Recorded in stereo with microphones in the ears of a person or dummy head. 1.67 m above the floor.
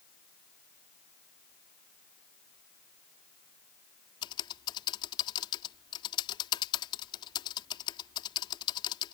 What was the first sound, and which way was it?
Typing on a keyboard, 25° left (ahead or behind).